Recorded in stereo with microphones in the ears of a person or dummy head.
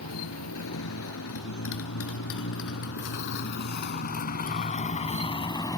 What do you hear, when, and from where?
0.0 s a motorcycle: 80° left; by 5.8 s 20° left (ahead or behind)